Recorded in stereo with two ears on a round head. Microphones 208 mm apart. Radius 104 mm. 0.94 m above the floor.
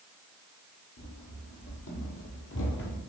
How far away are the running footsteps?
About 3 m.